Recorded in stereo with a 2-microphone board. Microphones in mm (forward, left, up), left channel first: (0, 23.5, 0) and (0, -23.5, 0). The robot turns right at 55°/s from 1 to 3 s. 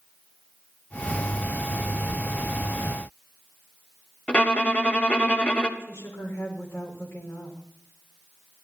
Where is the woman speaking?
55° left (ahead or behind), 5 m.